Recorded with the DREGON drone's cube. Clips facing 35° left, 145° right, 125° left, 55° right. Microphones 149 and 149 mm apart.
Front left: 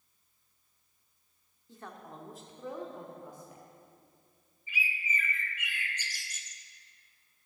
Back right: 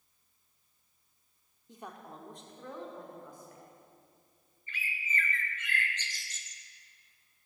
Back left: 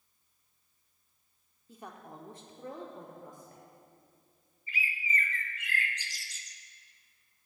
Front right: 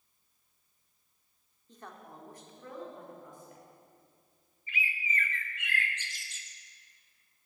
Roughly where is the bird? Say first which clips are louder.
Front left 3 dB, back left 1 dB; left.